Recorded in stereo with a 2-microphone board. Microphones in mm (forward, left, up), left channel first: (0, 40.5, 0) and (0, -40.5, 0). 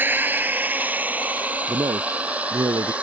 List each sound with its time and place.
0.0 s a drone: 25° right (ahead or behind); by 3.0 s 15° right (ahead or behind)
1.7 s a man speaking: 70° right (ahead or behind)